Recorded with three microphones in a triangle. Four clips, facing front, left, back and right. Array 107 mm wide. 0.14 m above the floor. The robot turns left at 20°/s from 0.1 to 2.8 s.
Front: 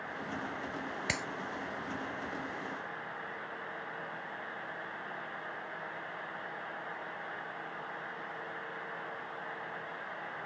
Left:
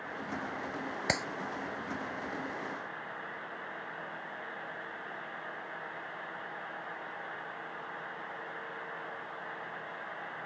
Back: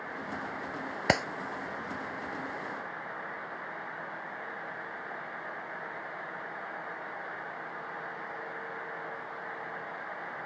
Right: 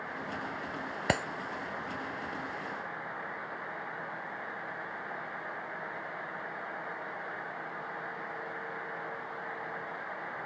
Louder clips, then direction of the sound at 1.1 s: Right 4 dB, back 13 dB; 160° right.